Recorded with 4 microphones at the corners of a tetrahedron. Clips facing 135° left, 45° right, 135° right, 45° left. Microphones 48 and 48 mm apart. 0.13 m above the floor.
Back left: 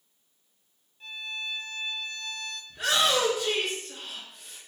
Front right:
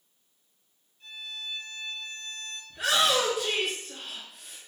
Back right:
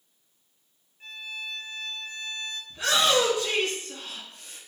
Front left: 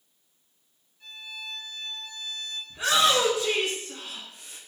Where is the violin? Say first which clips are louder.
Back left 4 dB, back right 3 dB; straight behind, 0.6 m.